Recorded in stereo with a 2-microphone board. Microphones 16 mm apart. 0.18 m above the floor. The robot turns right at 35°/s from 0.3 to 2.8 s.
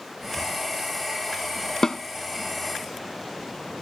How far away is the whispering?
About 8.5 m.